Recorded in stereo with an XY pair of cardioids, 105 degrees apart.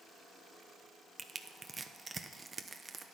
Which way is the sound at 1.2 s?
25° right.